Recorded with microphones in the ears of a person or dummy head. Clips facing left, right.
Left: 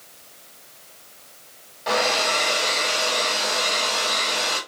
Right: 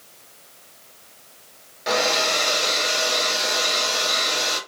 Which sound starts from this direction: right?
A hair dryer, at 1.9 s.